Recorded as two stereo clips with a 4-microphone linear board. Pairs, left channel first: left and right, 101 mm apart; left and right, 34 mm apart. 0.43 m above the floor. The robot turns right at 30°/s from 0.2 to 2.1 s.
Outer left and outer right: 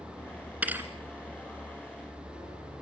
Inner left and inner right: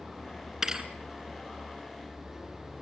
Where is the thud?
15° right (ahead or behind), 2 m; by 0.9 s 20° right (ahead or behind), 2 m.